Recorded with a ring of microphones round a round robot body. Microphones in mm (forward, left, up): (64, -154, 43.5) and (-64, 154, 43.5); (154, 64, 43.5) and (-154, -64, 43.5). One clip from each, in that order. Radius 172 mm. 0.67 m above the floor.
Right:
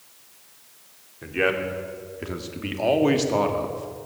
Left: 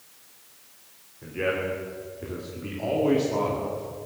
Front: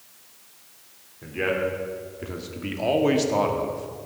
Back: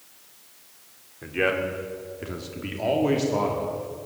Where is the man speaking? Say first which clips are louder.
Right 4 dB, back 1 dB; 100° right, 2.5 m; by 4.1 s 10° right, 2.0 m.